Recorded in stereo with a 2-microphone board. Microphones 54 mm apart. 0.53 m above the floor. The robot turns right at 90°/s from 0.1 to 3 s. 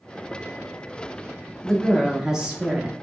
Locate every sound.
1.6 s a woman speaking: 10° left (ahead or behind), 0.6 m; by 2.9 s 20° right (ahead or behind), 0.6 m